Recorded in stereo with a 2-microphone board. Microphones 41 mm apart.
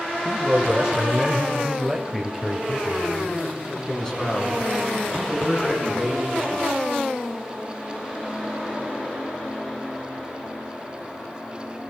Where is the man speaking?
20° right (ahead or behind), 1.6 m; by 6.7 s 15° left (ahead or behind), 5.5 m.